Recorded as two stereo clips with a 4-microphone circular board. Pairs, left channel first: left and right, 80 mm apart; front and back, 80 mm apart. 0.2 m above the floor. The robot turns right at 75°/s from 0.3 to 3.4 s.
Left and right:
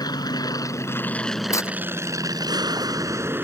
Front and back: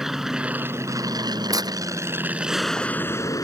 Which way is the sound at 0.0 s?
95° left.